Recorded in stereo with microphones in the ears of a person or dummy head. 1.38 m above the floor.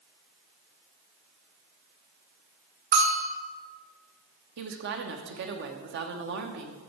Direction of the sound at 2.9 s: 65° right (ahead or behind).